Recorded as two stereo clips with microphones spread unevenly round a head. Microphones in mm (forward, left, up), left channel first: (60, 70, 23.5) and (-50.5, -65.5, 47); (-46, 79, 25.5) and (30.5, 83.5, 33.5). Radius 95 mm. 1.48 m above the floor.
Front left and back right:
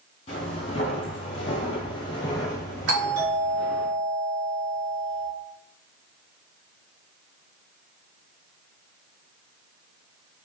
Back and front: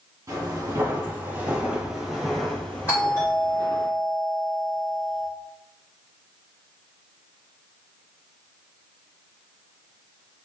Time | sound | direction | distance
0.3 | footsteps | 5° right | 1.9 m
2.9 | a doorbell | 115° right | 2 m